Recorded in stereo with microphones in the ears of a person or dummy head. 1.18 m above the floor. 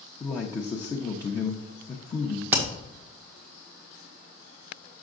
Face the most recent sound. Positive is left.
turn(degrees=-10)  # may be behind; listen again after turning